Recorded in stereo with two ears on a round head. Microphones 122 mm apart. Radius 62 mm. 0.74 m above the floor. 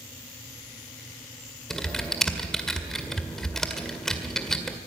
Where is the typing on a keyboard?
5° left (ahead or behind), 1.8 m.